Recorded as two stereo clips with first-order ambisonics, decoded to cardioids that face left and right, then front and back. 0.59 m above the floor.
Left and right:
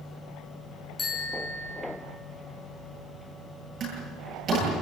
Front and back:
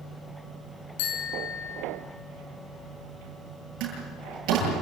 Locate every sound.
1.0 s a bicycle bell: 15° left, 5 m
3.8 s a door slam: 150° right, 9 m